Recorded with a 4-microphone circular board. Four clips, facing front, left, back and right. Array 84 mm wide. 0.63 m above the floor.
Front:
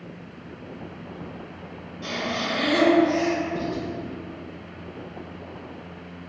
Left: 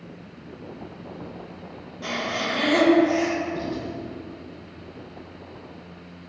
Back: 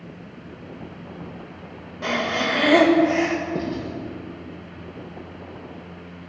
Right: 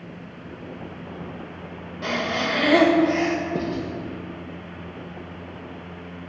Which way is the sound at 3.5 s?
120° right.